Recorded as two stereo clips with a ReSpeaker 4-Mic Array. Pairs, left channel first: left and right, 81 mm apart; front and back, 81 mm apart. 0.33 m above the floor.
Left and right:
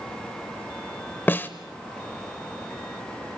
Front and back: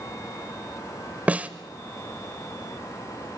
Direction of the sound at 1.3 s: 130° left.